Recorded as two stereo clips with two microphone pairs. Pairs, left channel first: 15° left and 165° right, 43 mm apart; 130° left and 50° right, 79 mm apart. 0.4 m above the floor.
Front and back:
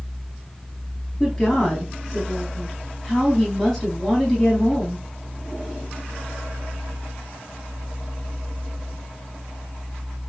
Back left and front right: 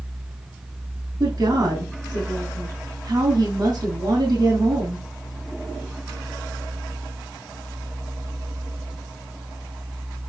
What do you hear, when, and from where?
1.2 s a woman speaking: 65° right, 3.5 m